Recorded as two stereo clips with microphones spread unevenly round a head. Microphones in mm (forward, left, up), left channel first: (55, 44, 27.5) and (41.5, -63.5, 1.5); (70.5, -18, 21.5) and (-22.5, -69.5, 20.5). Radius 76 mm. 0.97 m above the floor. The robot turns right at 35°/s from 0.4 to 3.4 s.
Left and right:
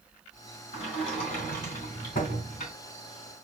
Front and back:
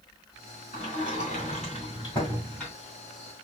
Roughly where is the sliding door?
Ahead left.